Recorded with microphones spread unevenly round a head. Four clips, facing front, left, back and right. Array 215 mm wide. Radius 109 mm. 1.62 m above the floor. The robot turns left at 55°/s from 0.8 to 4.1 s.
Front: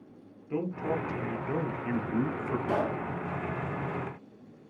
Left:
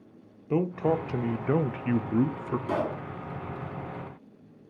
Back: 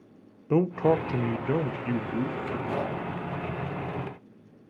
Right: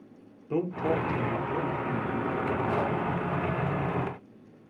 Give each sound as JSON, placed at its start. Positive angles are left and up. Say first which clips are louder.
{"t": 0.5, "sound": "a man speaking", "louder": "left 2 dB, back 8 dB", "azimuth_deg": 165, "distance_m": 0.6}
{"t": 2.7, "sound": "a pop", "louder": "right 1 dB, front 2 dB", "azimuth_deg": 65, "distance_m": 4.5}